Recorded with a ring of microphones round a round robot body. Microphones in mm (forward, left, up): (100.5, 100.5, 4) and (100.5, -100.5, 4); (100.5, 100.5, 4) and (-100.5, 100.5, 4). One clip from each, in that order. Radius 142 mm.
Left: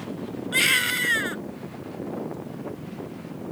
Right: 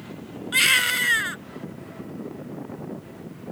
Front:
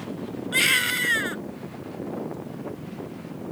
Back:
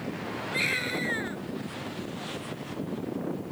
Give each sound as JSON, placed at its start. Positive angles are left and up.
{"t": 0.5, "sound": "a baby crying", "azimuth_deg": -45}